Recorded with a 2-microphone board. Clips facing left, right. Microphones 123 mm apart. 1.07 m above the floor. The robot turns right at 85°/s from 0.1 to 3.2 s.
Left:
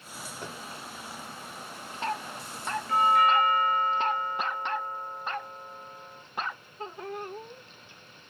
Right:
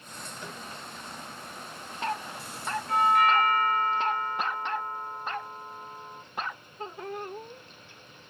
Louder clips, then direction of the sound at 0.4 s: Left 2 dB; 50° left (ahead or behind).